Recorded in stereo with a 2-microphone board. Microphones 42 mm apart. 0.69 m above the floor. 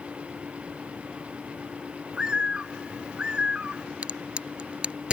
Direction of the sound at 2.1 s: 25° right (ahead or behind).